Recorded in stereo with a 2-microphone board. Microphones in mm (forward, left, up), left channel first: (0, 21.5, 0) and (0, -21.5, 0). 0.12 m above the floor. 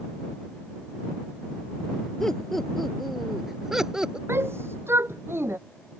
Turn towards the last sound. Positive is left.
turn(degrees=-75)  # may be behind; listen again after turning